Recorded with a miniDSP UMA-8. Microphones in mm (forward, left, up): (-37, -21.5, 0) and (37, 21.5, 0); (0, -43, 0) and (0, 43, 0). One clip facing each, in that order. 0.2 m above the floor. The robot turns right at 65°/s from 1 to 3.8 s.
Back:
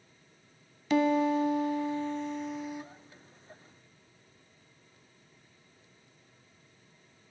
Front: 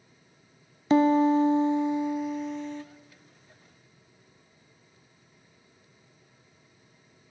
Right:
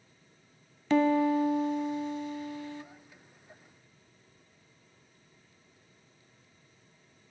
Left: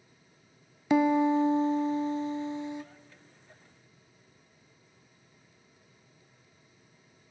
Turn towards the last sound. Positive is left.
turn(degrees=-150)